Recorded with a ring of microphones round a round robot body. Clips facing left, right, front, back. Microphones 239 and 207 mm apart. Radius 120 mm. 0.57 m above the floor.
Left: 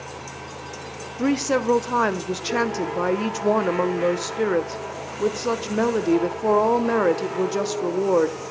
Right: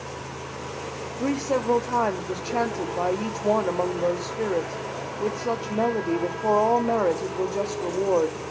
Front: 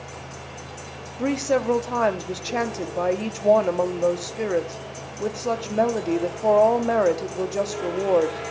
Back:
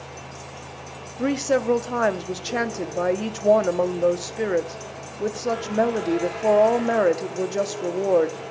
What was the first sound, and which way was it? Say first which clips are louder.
A woman speaking: left 4 dB, back 1 dB; 105° left.